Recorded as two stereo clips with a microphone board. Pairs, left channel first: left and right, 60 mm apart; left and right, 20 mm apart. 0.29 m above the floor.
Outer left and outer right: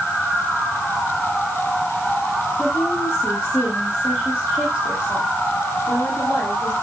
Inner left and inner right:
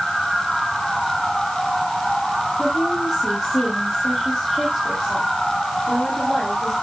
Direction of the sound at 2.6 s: 15° left (ahead or behind).